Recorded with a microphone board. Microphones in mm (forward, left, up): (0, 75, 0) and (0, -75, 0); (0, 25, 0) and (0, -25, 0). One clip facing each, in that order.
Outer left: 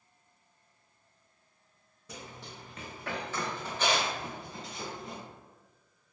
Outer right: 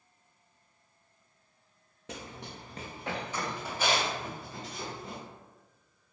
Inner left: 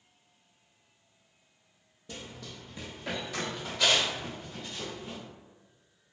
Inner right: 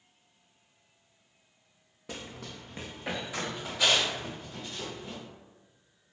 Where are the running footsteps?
85° right, 0.8 m; by 5.2 s centre (ahead or behind), 3.5 m.